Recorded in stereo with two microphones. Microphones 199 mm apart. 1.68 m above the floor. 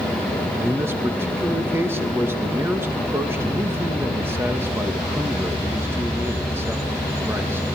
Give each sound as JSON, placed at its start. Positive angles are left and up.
{"t": 0.6, "sound": "a man speaking", "side_deg": -10, "distance_m": 2.0}